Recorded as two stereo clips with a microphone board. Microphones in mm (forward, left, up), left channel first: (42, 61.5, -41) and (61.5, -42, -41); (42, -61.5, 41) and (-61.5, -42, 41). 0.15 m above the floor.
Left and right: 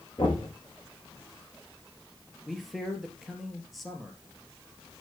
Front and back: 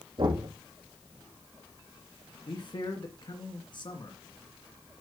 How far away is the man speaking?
About 2 m.